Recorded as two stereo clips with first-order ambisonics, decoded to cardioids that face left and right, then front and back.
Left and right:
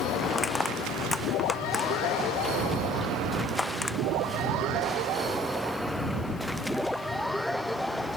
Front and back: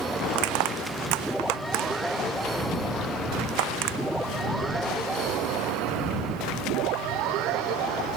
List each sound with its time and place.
0.3 s crushing: 175° left